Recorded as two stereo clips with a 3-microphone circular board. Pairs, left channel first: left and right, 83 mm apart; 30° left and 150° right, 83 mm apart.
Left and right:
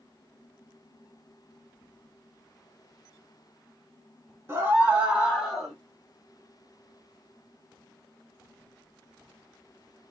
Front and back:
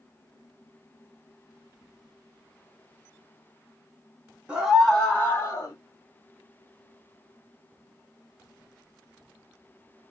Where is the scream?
85° right, 1.2 m; by 5.8 s 5° left, 1.5 m.